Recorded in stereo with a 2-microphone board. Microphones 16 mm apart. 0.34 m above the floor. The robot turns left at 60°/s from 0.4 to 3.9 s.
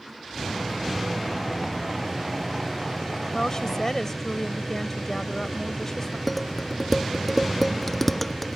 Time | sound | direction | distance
3.3 | a woman speaking | 75° left | ?
6.3 | dishes clattering | 15° left (ahead or behind) | ?